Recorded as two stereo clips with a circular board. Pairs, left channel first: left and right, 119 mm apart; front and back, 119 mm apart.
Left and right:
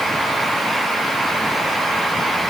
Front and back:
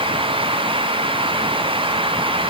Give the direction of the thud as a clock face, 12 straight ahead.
I don't hear a thud.